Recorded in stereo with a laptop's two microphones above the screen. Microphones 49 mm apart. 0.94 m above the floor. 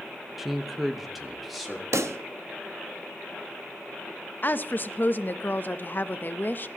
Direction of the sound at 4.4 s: 40° left (ahead or behind).